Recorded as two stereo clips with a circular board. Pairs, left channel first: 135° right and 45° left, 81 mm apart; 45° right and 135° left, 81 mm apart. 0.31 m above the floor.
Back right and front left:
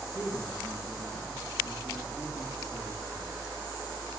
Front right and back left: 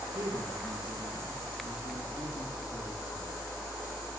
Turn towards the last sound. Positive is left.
turn(degrees=170)